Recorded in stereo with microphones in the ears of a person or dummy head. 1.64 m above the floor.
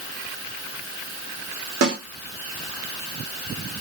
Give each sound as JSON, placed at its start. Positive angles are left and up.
{"t": 1.8, "sound": "a snare drum", "side_deg": -60, "distance_m": 1.3}